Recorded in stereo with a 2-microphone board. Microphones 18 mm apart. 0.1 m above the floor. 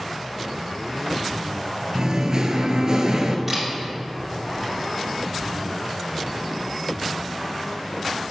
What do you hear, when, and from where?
1.9 s singing: 50° right (ahead or behind), 0.7 m
3.5 s a camera shutter: 15° right (ahead or behind), 2.5 m